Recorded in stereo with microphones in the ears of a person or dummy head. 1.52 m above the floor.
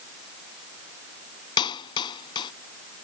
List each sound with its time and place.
1.6 s a clap: 25° left (ahead or behind)